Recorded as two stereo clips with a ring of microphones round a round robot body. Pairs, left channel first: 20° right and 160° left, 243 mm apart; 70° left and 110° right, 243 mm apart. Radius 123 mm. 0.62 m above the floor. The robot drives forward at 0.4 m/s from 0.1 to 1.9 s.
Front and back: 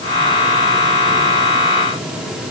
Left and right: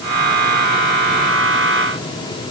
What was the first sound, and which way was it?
Only background noise.